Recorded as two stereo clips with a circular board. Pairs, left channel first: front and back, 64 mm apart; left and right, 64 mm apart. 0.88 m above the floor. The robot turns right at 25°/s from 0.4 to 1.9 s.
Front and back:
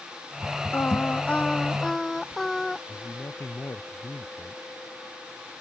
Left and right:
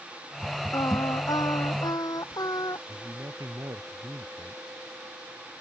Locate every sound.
0.7 s singing: 60° left; by 2.8 s 85° left
2.9 s a man speaking: 55° right